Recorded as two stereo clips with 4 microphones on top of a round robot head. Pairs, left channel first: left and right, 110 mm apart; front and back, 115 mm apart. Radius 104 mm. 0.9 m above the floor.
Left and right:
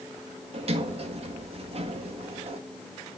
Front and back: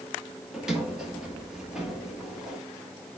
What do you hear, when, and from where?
0.5 s a sliding door: 95° right, 1.5 m